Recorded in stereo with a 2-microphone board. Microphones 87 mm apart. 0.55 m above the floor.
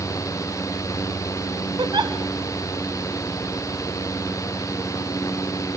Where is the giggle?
55° right (ahead or behind), 1.3 m.